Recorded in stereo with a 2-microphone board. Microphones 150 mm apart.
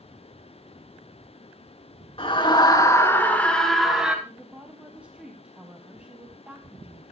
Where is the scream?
40° left (ahead or behind), 3 m; by 4.2 s 5° right (ahead or behind), 3 m.